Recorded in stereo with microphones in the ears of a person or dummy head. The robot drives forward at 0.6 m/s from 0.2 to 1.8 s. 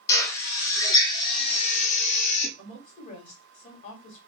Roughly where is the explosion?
No explosion in this recording.